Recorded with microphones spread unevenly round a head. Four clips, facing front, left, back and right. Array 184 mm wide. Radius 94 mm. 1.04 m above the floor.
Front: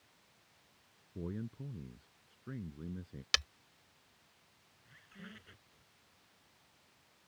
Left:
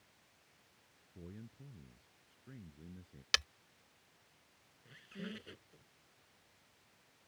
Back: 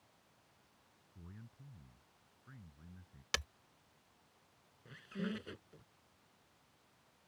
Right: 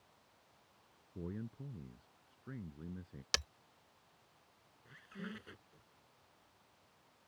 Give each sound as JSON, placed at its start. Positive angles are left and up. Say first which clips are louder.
{"t": 1.1, "sound": "a man speaking", "louder": "right 8 dB, front 16 dB", "azimuth_deg": -25}
{"t": 3.3, "sound": "breaking glass", "louder": "left 3 dB, front 2 dB", "azimuth_deg": -140}
{"t": 4.8, "sound": "a squeak", "louder": "left 1 dB, back 12 dB", "azimuth_deg": -175}